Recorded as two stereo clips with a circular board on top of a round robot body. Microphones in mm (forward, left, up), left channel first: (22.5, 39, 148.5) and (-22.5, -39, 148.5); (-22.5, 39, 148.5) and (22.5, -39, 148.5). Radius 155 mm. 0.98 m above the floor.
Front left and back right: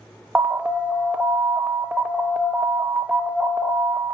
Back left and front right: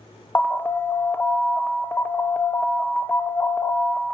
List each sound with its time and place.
0.3 s an alarm: 170° left, 1.2 m